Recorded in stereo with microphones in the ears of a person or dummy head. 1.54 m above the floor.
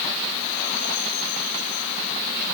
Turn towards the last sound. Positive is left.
No sound to turn to.